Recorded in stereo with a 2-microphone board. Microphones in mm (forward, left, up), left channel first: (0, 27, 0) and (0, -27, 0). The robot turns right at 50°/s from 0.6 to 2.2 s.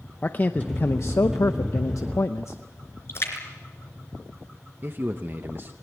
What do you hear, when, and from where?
0.2 s a man speaking: 35° left, 0.7 m; by 2.6 s 115° left, 0.7 m
3.1 s a splash: 50° left (ahead or behind), 3.5 m
4.8 s a man speaking: 40° right (ahead or behind), 0.8 m